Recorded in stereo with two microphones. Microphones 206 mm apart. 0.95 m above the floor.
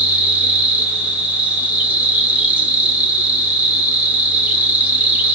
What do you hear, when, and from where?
0.0 s an insect: 5° right (ahead or behind), 1.4 m